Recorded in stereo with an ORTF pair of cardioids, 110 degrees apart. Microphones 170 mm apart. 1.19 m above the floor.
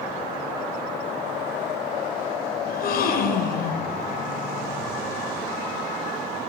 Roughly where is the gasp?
Ahead left.